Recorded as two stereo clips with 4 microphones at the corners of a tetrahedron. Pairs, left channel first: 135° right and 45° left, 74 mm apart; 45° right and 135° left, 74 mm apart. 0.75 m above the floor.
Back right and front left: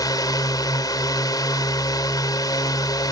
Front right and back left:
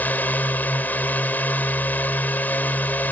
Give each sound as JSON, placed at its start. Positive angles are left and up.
{"t": 0.0, "sound": "a drone", "azimuth_deg": -110}